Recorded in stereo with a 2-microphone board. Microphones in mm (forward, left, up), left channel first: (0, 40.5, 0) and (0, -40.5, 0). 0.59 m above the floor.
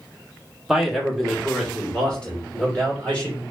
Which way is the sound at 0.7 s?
5° right (ahead or behind).